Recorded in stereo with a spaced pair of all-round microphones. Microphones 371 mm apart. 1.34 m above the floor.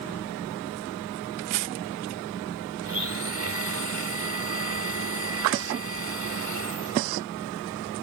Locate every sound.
2.8 s a blender: 40° right (ahead or behind)